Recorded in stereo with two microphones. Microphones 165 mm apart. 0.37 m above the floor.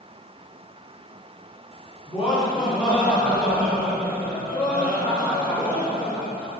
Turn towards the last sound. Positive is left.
turn(degrees=-5)  # may be behind; listen again after turning